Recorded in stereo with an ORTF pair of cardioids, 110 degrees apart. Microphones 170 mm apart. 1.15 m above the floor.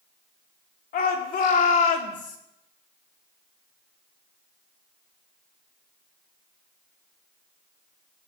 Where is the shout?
60° left, 3 m; by 2.4 s 45° left, 2.5 m.